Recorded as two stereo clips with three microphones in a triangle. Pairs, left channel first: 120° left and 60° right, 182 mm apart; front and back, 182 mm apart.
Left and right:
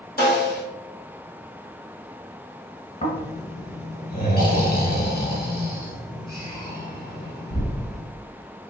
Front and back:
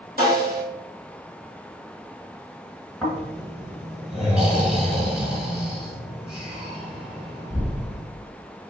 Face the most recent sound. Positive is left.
turn(degrees=95)